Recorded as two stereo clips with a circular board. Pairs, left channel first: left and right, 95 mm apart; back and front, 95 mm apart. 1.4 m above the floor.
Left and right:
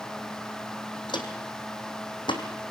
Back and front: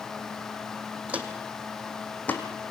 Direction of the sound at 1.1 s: 70° left.